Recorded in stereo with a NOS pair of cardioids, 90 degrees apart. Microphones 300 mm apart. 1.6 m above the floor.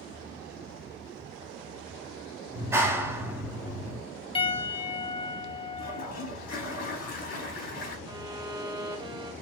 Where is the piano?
20° left, 1.4 m.